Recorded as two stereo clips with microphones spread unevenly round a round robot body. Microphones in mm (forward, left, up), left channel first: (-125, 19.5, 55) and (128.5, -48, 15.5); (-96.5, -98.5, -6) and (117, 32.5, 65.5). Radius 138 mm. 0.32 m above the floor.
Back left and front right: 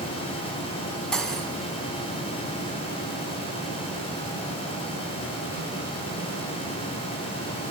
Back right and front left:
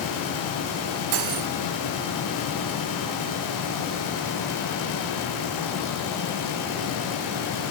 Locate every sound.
1.1 s cutlery clinking: 75° left, 1.4 m